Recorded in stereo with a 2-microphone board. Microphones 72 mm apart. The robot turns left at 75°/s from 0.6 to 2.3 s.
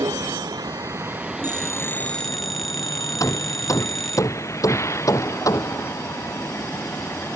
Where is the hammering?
50° left (ahead or behind).